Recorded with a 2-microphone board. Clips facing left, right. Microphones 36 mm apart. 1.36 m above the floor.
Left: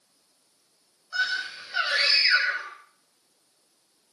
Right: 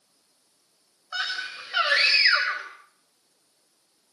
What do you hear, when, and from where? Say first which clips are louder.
1.1 s a scream: left 3 dB; 65° right (ahead or behind), 5.5 m